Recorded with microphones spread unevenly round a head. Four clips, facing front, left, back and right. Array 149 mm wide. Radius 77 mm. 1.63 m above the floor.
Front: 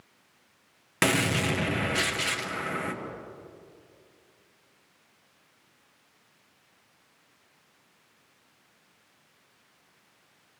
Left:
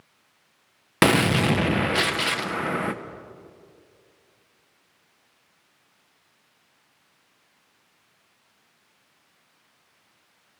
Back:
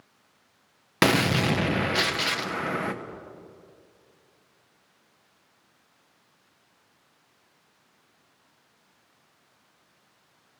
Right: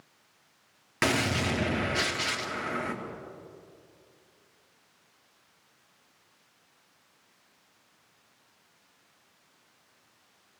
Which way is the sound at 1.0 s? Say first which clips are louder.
Left 8 dB, back 4 dB; 105° left.